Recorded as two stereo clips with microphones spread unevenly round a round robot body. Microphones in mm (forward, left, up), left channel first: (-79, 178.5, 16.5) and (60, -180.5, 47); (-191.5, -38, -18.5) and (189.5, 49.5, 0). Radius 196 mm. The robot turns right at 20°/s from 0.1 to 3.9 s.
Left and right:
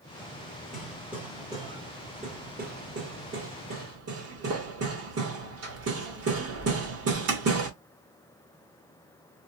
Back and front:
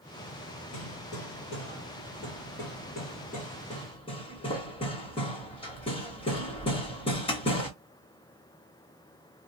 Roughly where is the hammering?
Behind.